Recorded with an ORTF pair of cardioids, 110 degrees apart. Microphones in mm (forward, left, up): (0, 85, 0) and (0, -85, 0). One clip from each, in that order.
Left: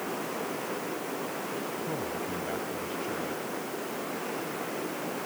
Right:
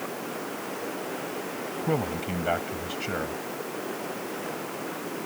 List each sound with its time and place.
1.8 s a man speaking: 60° right